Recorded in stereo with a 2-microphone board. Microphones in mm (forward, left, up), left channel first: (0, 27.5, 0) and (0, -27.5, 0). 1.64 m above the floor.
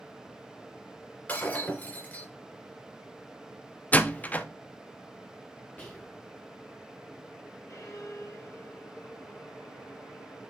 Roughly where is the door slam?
Left.